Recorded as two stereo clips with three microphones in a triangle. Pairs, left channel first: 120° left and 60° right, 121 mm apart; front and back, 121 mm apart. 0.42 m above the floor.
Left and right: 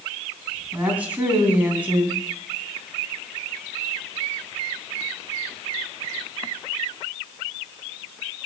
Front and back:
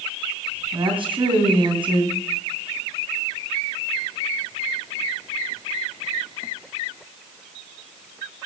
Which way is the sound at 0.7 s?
140° right.